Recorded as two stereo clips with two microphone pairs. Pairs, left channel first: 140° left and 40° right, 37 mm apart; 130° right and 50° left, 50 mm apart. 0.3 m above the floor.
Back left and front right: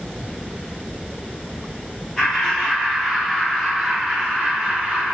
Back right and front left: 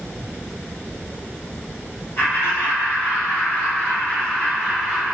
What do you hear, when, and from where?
2.2 s laughter: 145° right, 1.8 m; by 5.2 s 55° right, 1.0 m